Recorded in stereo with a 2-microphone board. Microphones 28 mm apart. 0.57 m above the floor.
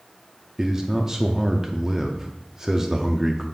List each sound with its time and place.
0.6 s a man speaking: 15° right (ahead or behind), 0.6 m